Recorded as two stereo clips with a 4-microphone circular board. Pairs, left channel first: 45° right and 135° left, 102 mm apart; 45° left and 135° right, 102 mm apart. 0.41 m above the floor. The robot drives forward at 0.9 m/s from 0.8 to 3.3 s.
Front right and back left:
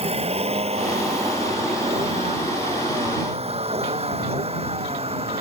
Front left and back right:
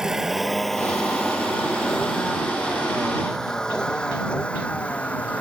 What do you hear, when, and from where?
0.0 s a vehicle: 140° left; by 5.4 s 120° left